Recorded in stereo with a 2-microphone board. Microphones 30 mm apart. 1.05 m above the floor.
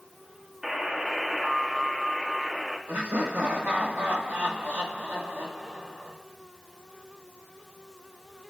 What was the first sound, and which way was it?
A buzzer, 20° right (ahead or behind).